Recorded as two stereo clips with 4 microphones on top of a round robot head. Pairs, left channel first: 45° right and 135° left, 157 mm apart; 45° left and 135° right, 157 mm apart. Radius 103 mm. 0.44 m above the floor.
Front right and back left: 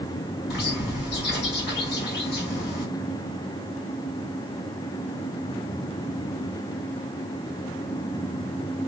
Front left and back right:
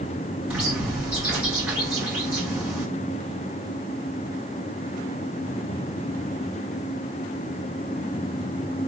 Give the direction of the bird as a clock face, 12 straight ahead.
2 o'clock.